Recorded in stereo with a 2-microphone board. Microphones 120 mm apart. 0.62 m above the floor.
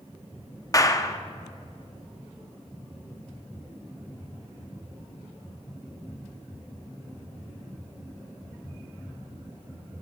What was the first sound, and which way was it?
A clap, 30° left (ahead or behind).